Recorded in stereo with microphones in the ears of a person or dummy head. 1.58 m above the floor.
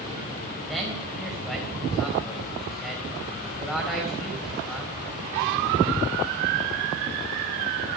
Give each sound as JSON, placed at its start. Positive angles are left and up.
{"t": 0.7, "sound": "a man speaking", "side_deg": 0, "distance_m": 3.5}